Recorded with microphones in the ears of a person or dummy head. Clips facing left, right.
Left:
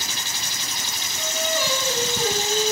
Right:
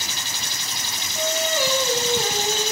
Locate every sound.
1.1 s singing: 50° right (ahead or behind), 5.5 m